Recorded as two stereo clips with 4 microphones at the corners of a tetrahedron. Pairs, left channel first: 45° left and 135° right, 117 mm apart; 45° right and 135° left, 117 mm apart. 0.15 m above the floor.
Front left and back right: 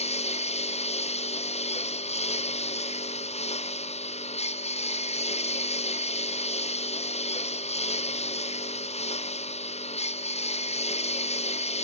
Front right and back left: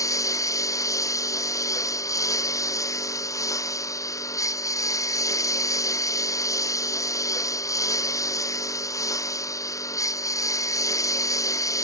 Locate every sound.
0.0 s a lawn mower: 20° left